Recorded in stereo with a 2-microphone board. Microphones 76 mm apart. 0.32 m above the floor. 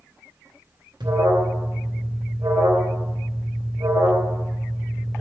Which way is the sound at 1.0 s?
75° right (ahead or behind).